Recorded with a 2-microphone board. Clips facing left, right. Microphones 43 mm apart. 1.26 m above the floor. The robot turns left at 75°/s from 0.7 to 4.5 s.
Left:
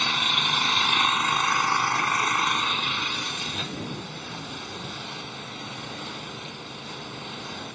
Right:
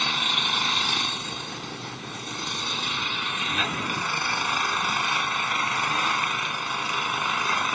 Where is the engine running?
175° left; by 7.8 s 110° right.